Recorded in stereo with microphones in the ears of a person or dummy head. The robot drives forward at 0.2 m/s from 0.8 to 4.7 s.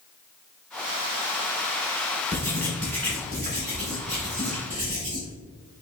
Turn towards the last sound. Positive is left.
turn(degrees=15)  # may be behind; listen again after turning